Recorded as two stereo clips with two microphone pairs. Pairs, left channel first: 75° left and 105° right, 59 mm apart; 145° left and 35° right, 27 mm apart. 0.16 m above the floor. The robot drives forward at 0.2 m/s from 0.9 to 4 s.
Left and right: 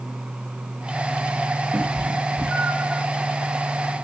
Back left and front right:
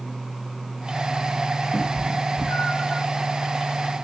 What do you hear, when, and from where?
1.7 s a cat meowing: 170° left, 3.5 m